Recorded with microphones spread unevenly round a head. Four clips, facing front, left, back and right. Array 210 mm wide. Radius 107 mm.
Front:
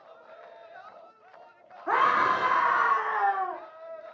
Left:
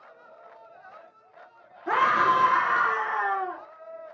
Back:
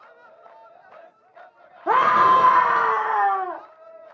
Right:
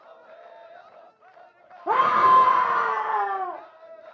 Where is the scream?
155° right, 1.2 m.